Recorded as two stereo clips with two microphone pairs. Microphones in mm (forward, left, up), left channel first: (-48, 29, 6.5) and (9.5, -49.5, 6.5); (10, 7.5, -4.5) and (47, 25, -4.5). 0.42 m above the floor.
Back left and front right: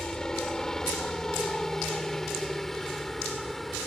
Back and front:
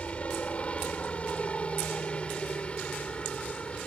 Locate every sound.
0.0 s a helicopter: 155° right; by 3.9 s 145° right